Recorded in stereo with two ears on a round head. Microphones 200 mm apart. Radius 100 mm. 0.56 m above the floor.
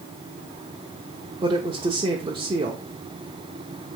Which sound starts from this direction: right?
A woman speaking, at 1.4 s.